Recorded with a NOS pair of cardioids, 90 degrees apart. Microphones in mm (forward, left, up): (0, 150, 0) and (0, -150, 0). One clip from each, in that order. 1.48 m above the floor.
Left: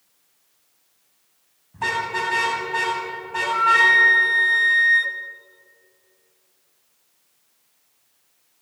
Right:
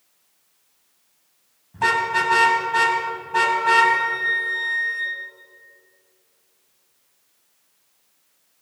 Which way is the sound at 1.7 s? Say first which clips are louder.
Right 4 dB; 25° right.